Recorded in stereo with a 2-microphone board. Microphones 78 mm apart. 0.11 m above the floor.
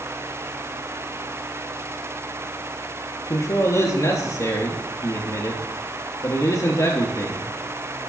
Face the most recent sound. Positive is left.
turn(degrees=45)  # may be behind; listen again after turning